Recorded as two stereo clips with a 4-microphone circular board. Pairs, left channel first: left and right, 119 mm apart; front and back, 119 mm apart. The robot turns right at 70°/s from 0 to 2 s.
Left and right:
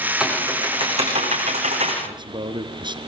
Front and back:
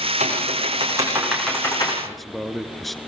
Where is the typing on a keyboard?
175° right, 9 m; by 1.9 s 50° right, 9 m.